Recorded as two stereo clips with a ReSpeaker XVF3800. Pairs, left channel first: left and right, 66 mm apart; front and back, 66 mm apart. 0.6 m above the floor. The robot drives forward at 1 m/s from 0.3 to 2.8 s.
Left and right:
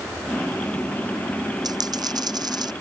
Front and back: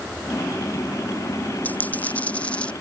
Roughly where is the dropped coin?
Right.